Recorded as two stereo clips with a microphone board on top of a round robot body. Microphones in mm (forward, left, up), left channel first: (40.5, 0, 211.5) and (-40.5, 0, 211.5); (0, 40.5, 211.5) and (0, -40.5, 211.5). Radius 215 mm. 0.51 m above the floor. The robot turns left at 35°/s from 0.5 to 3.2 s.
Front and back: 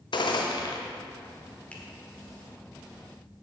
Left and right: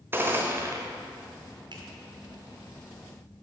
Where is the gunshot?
25° right, 1.0 m; by 0.8 s 35° right, 1.0 m.